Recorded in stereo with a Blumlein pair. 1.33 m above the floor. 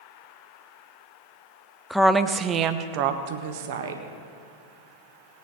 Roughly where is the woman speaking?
Ahead.